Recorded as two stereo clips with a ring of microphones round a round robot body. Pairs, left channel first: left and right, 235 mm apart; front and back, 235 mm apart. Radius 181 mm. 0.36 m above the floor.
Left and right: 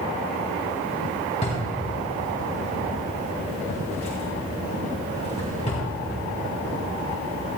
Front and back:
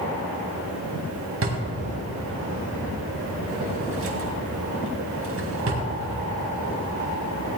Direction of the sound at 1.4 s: 160° left.